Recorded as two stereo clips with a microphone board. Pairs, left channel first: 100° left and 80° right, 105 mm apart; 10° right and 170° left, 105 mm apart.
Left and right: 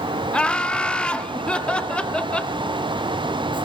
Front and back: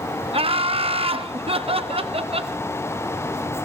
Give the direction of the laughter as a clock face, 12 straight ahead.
6 o'clock.